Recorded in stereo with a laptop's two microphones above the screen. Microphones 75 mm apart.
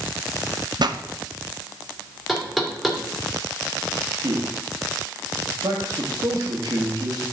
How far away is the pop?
About 0.6 m.